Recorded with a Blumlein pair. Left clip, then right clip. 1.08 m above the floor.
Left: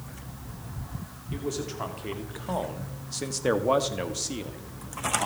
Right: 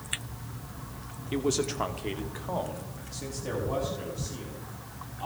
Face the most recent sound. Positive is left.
turn(degrees=60)